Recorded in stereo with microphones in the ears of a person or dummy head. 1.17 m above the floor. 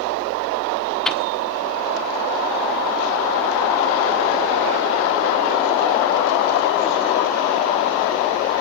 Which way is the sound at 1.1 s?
5° left (ahead or behind).